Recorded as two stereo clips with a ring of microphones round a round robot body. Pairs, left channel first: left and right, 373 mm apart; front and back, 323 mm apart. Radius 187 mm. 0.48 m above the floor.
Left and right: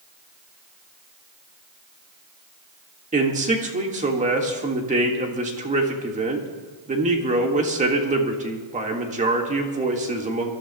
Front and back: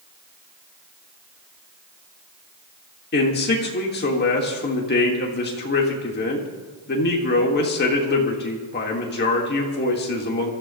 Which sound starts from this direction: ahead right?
A man speaking, at 3.1 s.